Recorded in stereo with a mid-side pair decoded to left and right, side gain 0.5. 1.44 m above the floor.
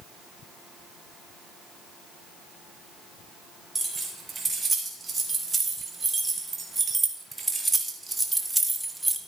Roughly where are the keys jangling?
Ahead.